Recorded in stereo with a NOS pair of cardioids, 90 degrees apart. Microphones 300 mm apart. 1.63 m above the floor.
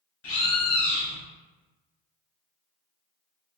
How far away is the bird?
About 1.2 m.